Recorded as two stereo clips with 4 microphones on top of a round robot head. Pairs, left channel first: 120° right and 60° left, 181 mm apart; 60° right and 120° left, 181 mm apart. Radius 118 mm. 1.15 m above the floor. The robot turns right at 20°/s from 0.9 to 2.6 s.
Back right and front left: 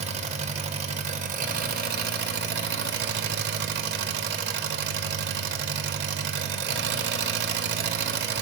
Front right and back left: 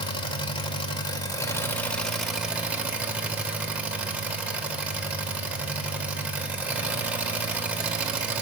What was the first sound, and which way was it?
An engine running, 5° left.